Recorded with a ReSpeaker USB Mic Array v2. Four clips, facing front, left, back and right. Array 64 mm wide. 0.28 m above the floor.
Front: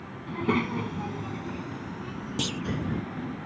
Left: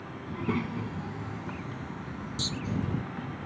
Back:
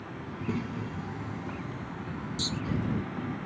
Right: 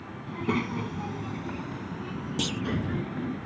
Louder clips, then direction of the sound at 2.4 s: Right 6 dB, front 5 dB; 45° right.